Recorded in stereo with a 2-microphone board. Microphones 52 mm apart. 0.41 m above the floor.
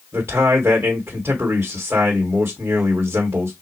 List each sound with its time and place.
0.1 s a man speaking: 50° right (ahead or behind), 1.6 m